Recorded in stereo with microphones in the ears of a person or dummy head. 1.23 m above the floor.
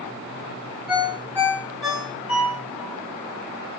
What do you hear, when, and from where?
0.9 s a ringtone: centre (ahead or behind), 1.7 m